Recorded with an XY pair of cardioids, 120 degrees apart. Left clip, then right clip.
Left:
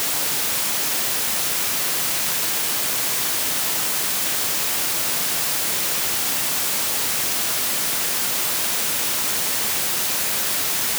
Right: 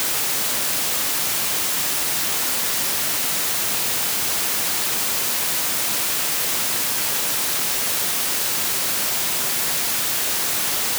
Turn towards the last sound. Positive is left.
No sound to turn to.